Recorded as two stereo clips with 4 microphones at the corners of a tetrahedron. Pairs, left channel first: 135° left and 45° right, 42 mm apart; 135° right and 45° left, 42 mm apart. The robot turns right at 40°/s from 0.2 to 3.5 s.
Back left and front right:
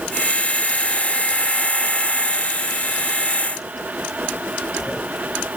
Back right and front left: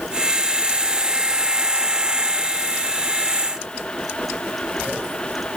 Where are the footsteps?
I don't hear footsteps.